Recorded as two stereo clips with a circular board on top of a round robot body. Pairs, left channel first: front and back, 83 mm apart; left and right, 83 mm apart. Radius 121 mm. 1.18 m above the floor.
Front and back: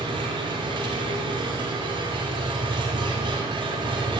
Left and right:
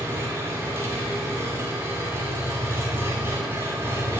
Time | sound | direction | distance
0.0 | an engine running | 155° right | 3 m